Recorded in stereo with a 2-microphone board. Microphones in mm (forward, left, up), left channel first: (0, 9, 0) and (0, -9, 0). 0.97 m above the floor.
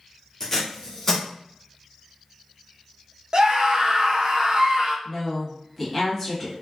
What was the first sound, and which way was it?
Tape being pulled, 30° left (ahead or behind).